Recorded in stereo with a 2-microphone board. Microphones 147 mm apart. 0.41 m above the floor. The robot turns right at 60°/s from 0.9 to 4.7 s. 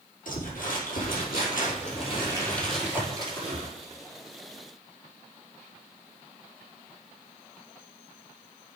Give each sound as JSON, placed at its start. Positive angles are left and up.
{"t": 0.2, "sound": "crumpling", "azimuth_deg": 70, "distance_m": 4.0}